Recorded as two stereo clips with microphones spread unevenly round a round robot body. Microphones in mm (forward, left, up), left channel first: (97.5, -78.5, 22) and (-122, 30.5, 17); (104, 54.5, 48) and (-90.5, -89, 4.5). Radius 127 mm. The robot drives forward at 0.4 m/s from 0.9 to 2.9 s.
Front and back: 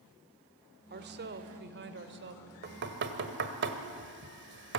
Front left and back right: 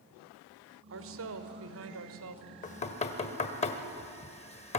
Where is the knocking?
100° left, 1.5 m; by 4.8 s 105° left, 1.6 m.